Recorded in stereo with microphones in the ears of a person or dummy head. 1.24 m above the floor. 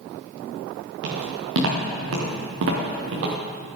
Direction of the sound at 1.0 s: 70° right (ahead or behind).